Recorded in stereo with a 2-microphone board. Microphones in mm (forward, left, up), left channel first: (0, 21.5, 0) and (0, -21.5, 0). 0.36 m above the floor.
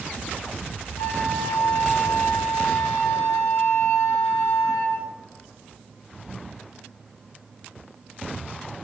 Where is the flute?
80° left, 0.6 m.